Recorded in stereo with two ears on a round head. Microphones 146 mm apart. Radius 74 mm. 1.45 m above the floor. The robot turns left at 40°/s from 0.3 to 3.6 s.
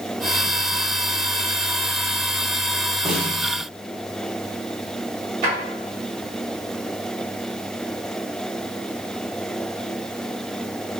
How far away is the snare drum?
About 1.3 m.